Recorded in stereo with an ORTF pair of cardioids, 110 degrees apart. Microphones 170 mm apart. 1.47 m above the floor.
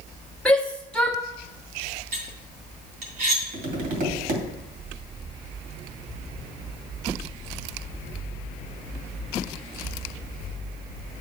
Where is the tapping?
55° right, 2.5 m.